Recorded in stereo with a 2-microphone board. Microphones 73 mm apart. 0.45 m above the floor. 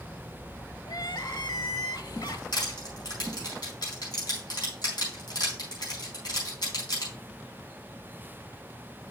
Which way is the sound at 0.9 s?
75° left (ahead or behind).